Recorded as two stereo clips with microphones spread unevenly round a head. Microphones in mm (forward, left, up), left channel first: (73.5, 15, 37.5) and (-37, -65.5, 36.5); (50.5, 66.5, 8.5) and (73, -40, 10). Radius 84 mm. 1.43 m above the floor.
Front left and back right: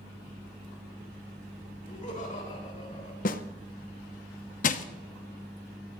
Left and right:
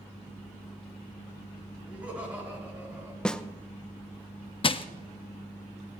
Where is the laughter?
Straight ahead, 9 m; by 3.1 s 5° right, 9 m.